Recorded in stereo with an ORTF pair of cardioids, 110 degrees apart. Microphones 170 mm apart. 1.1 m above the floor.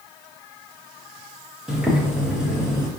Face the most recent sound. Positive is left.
turn(degrees=-5)